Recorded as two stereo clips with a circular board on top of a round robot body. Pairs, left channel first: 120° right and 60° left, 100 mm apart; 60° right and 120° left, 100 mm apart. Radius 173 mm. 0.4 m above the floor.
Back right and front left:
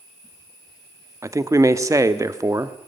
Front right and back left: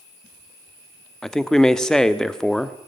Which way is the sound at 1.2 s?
20° left.